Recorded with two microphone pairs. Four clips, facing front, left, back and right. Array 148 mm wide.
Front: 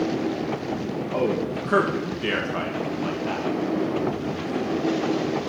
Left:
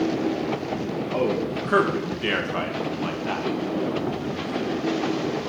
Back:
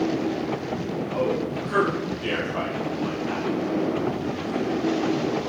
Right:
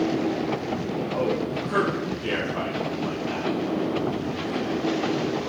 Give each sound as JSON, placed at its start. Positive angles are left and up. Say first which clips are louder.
{"t": 1.1, "sound": "a man speaking", "louder": "left 2 dB, front 1 dB", "azimuth_deg": 35, "distance_m": 1.9}